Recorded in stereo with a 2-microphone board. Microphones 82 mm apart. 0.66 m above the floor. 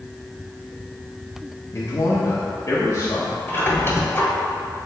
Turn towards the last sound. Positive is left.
turn(degrees=30)  # may be behind; listen again after turning